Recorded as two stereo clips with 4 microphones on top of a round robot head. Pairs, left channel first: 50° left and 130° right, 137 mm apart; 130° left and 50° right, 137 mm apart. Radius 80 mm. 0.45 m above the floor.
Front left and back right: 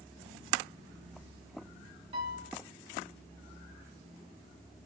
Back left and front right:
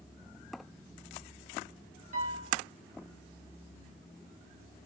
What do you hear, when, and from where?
2.1 s a piano: 80° right, 0.8 m